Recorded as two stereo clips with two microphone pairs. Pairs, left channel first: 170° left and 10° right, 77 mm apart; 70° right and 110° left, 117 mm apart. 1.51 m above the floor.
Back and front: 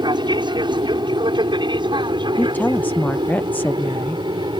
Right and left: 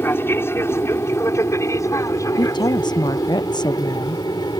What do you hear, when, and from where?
0.0 s an aircraft: straight ahead; by 4.6 s 15° right
2.4 s a woman speaking: 115° right